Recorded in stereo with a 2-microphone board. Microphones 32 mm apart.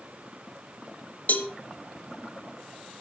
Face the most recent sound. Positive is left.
turn(degrees=55)  # may be behind; listen again after turning